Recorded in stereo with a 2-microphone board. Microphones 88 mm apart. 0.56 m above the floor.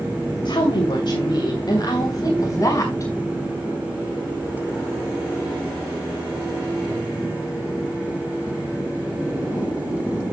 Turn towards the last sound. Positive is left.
turn(degrees=35)  # may be behind; listen again after turning